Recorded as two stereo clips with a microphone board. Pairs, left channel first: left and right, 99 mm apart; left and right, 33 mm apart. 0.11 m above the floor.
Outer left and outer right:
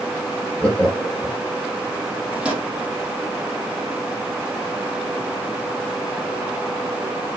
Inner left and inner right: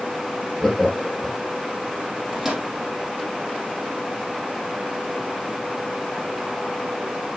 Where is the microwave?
10° right (ahead or behind), 4 m.